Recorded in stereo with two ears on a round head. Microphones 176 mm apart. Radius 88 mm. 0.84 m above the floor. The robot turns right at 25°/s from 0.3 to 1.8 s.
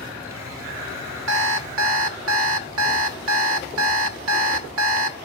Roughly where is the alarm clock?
Right.